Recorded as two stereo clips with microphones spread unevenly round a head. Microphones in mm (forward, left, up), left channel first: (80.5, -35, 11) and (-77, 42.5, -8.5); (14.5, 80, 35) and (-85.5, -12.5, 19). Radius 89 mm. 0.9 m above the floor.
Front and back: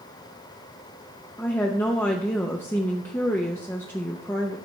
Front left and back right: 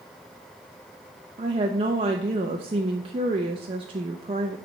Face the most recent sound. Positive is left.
turn(degrees=-110)